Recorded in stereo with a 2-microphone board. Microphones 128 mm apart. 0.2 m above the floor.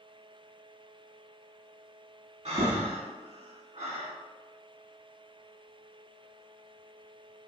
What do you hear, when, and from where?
2.5 s breathing: 60° right (ahead or behind), 0.6 m